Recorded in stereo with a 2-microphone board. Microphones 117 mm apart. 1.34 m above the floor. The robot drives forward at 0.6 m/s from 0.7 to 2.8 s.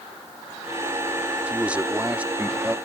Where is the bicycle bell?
I don't hear a bicycle bell.